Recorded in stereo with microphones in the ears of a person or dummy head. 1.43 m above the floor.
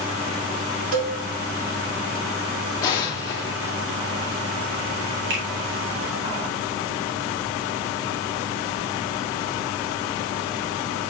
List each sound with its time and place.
0.9 s a cowbell: 50° right (ahead or behind), 1.1 m
2.8 s an explosion: 20° left (ahead or behind), 1.1 m
5.3 s a finger snap: 75° right (ahead or behind), 2.0 m